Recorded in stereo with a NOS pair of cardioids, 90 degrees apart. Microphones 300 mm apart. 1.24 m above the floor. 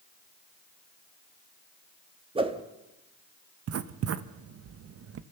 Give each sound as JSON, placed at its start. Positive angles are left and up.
{"t": 2.4, "sound": "a whoosh", "azimuth_deg": -20, "distance_m": 1.8}
{"t": 3.7, "sound": "writing", "azimuth_deg": -50, "distance_m": 1.0}